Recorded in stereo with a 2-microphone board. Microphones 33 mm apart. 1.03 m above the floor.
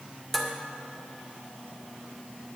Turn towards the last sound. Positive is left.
turn(degrees=10)  # may be behind; listen again after turning